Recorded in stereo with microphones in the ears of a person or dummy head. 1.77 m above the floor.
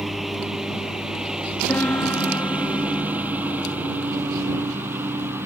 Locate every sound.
0.0 s a lawn mower: 5° left (ahead or behind); by 5.5 s 5° right (ahead or behind)
1.7 s a piano: 15° left (ahead or behind)